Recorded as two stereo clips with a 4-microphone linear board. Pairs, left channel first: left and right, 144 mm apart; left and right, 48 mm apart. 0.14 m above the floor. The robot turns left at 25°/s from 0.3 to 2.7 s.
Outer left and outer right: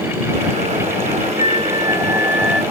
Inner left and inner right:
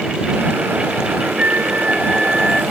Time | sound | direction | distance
1.4 | a flute | 145° right | ?